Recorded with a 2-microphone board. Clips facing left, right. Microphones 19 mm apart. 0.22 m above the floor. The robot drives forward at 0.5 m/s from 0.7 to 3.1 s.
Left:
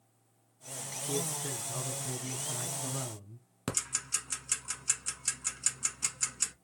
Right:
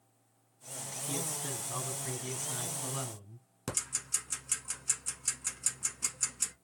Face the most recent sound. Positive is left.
turn(degrees=30)  # may be behind; listen again after turning